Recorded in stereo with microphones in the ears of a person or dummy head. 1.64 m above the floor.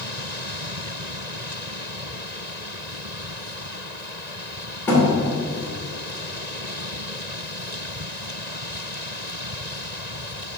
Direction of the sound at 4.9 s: 10° left (ahead or behind).